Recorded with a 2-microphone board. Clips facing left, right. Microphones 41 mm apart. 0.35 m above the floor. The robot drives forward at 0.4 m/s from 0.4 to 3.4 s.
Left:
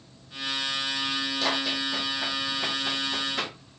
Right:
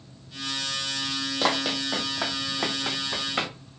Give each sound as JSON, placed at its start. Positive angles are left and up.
{"t": 1.4, "sound": "running footsteps", "side_deg": -45, "distance_m": 0.9}